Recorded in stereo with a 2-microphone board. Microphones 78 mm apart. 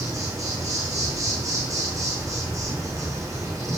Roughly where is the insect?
Right.